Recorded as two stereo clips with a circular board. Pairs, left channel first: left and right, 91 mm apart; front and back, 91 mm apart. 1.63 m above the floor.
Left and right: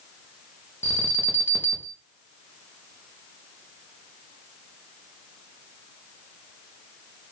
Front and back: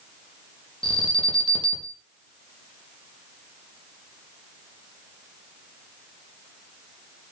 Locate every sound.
0.8 s an alarm: 25° left, 1.8 m